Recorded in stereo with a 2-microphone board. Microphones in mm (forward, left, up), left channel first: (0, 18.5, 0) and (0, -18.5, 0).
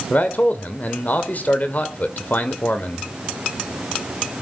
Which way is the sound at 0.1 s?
50° left (ahead or behind).